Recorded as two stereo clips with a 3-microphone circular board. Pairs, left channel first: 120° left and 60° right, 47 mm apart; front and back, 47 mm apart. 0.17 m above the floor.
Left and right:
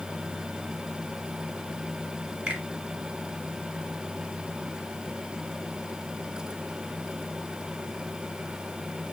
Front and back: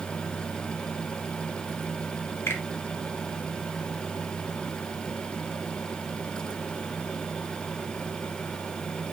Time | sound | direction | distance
2.5 | a finger snap | 15° right | 1.8 m